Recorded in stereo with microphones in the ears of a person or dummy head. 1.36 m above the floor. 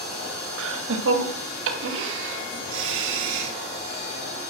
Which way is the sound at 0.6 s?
85° right.